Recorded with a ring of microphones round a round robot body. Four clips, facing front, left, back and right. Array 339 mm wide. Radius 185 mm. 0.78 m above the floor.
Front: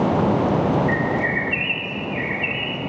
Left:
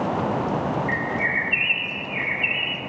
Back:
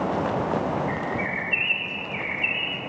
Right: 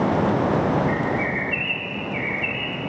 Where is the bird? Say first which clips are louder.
Right 2 dB, front 6 dB; 65° left, 2.5 m.